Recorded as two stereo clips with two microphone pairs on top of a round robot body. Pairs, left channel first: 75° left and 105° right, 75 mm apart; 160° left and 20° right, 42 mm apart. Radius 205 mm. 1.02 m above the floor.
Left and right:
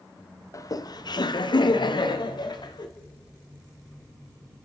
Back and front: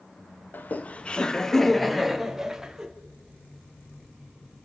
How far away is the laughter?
About 1.4 m.